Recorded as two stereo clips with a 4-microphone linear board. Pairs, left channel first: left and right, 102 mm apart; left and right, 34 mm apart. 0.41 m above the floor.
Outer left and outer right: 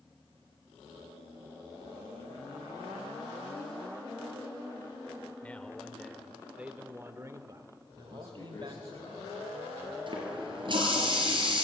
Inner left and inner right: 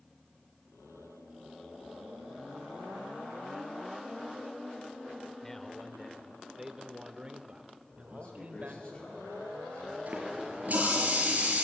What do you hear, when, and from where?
5.4 s a man speaking: 15° left (ahead or behind), 1.2 m; by 8.9 s 55° right (ahead or behind), 1.6 m
8.0 s a man speaking: 50° left (ahead or behind), 4.5 m
10.1 s a running tap: 50° right (ahead or behind), 5 m